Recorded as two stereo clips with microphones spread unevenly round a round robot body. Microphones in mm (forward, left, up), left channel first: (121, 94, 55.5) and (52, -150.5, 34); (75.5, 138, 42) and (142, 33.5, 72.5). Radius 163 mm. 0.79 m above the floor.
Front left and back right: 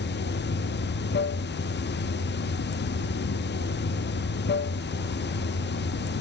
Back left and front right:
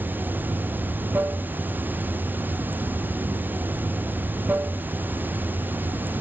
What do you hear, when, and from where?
0.0 s running water: 20° left, 0.7 m